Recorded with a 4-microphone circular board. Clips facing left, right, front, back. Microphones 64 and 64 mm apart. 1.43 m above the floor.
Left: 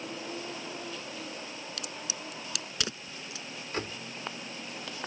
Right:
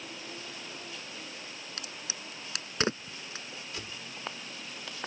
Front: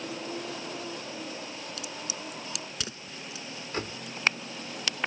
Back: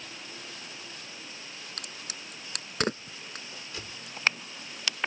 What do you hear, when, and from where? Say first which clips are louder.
0.0 s a vehicle: left 5 dB, front 9 dB; 30° left
1.8 s a crack: left 3 dB, front 5 dB; 145° right
3.7 s a door slam: left 10 dB, front 10 dB; 45° left